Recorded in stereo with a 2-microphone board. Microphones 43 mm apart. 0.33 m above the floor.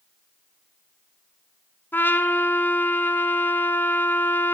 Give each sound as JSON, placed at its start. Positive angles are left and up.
{"t": 1.9, "sound": "a trumpet", "side_deg": 55, "distance_m": 1.3}